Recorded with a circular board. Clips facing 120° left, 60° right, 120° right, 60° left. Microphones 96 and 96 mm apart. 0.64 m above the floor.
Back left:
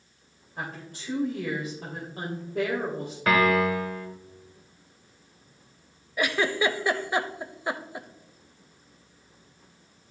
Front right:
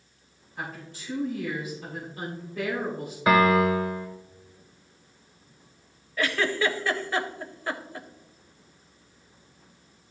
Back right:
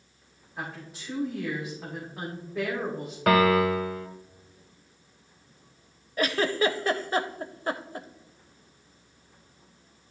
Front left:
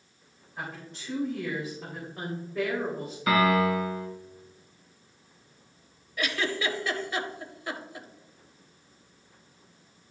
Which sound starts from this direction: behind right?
A piano, at 3.3 s.